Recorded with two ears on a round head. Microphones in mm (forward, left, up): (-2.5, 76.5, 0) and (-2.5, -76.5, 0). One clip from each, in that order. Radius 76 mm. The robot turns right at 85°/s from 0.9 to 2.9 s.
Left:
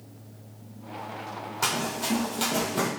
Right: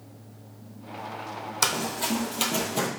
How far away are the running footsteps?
About 1.5 m.